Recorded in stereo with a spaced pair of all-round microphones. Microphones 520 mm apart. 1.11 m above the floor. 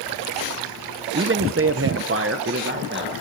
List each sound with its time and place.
1.1 s a man speaking: 20° right (ahead or behind), 0.7 m